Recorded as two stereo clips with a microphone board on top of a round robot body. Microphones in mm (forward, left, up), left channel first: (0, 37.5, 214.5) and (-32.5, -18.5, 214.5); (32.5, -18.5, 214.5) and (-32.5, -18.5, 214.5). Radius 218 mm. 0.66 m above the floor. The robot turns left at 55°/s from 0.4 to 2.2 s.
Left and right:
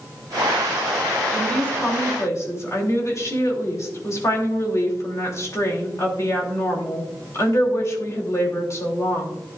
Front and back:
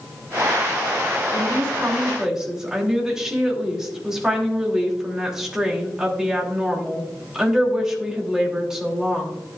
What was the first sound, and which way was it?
A woman speaking, 150° left.